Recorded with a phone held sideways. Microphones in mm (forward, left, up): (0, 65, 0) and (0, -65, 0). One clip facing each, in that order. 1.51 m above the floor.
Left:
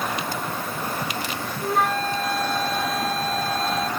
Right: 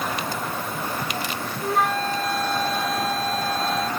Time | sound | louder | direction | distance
1.6 | a flute | even | centre (ahead or behind) | ?